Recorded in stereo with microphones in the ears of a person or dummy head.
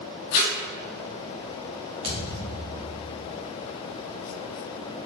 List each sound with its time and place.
0.3 s tape being pulled: 45° left (ahead or behind), 1.9 m
2.0 s a thud: 25° right (ahead or behind), 1.1 m